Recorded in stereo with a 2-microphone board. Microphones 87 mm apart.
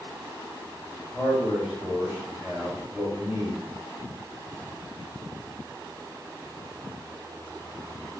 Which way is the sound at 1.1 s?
10° right (ahead or behind).